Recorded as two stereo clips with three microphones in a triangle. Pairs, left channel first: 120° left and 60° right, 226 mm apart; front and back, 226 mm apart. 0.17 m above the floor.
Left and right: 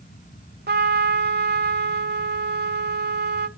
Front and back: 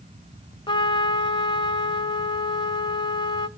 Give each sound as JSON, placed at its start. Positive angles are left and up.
{"t": 0.7, "sound": "a trumpet", "azimuth_deg": -55, "distance_m": 0.6}